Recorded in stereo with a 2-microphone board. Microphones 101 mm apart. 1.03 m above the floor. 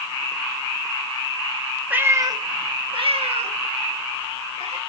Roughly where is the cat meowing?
Centre.